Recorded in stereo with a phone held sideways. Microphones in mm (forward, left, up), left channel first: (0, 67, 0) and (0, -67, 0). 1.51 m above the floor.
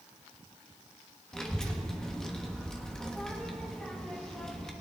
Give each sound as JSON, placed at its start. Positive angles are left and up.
{"t": 1.3, "sound": "a child speaking", "side_deg": 5, "distance_m": 1.1}